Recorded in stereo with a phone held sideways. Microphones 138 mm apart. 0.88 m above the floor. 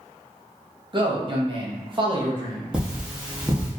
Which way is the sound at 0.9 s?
35° right (ahead or behind).